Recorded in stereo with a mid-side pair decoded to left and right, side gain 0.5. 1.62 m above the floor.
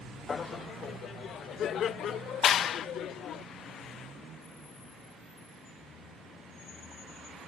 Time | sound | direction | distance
0.3 | laughter | 30° left | ?
2.4 | a clap | 55° left | ?